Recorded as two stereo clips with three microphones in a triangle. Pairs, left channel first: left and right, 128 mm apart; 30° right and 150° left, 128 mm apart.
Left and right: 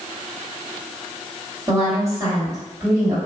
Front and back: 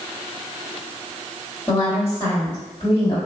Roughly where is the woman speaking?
Right.